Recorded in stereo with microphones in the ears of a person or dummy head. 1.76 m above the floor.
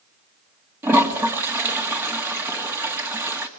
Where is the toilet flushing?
10° right (ahead or behind), 2 m.